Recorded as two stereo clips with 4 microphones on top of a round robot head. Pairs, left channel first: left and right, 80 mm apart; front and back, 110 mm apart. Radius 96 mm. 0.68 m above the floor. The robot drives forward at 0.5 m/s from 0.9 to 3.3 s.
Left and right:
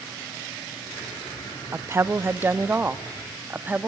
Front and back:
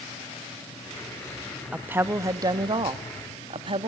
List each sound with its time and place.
1.7 s a woman speaking: 110° right, 0.8 m; by 3.9 s 155° right, 1.2 m